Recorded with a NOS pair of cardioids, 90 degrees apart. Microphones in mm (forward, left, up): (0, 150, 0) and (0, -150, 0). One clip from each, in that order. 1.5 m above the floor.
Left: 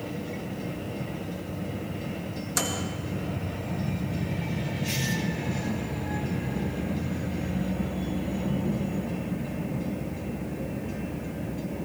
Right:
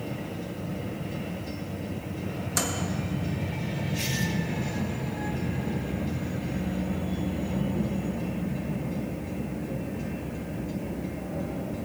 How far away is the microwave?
About 1.7 m.